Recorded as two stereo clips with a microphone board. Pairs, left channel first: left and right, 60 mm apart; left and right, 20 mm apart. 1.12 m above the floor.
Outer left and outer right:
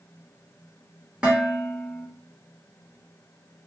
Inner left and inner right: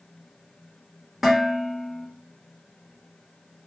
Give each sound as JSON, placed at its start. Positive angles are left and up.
{"t": 1.2, "sound": "dishes clattering", "side_deg": -15, "distance_m": 1.2}